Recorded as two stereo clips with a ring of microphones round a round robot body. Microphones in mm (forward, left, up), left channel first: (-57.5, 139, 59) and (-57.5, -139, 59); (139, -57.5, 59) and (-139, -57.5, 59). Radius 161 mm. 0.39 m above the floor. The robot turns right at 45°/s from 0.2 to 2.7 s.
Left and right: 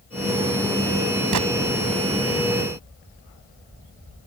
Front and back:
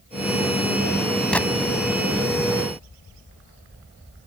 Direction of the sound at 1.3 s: 85° right.